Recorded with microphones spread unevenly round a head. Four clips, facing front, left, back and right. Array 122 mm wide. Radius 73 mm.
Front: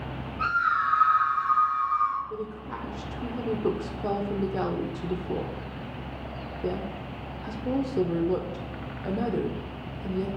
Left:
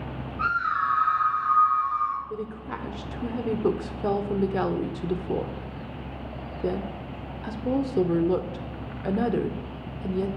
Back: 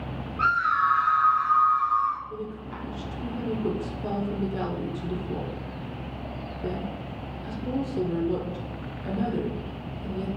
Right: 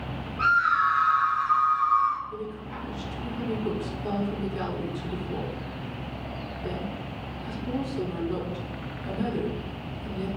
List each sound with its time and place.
0.4 s a scream: 170° left, 3 m; by 2.2 s straight behind, 1.7 m
2.3 s a woman speaking: 70° left, 0.8 m